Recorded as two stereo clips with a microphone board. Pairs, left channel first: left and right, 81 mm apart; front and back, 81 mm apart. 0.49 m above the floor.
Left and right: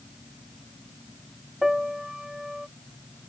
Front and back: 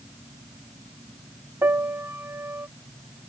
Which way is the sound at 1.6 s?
165° right.